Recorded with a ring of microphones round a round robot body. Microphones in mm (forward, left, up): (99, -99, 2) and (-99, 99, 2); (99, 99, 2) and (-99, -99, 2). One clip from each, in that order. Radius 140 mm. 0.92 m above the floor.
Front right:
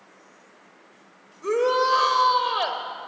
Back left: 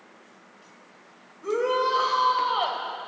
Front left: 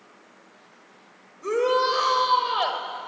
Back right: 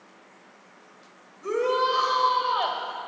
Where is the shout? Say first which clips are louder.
Front right 3 dB, front left 2 dB; 25° right, 4 m.